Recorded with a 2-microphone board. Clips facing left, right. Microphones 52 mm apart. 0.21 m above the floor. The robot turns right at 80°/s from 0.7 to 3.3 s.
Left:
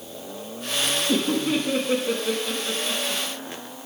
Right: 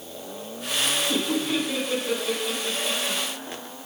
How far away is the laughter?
About 5.5 m.